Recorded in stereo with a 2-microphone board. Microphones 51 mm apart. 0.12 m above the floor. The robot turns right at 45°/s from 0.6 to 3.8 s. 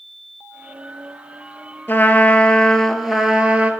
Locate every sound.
1.9 s a trumpet: 135° left, 0.6 m; by 3.7 s 145° right, 0.6 m